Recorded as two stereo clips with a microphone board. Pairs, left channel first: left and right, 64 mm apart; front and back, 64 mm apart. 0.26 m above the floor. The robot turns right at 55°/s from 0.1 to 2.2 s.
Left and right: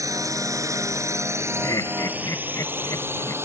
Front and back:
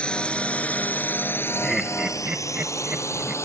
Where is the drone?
70° right; by 3.4 s 40° right.